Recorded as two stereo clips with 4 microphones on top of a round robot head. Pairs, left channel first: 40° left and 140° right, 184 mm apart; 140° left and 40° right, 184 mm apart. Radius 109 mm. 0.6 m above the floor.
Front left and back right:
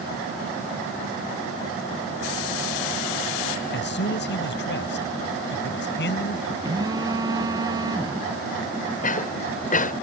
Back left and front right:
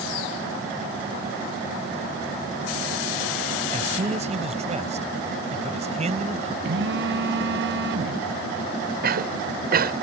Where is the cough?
5° right.